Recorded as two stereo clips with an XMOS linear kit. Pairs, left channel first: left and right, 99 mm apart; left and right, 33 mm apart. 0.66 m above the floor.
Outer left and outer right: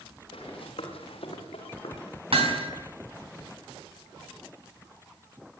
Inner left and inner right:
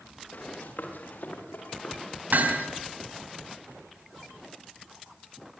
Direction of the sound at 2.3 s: 70° right (ahead or behind).